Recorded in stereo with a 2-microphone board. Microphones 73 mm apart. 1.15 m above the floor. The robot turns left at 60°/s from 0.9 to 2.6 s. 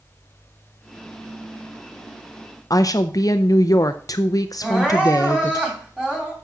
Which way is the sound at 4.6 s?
10° right (ahead or behind).